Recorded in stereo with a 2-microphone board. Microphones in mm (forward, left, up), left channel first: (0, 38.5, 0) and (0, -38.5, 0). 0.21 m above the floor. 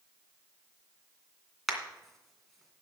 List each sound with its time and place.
1.7 s a crack: centre (ahead or behind), 2.5 m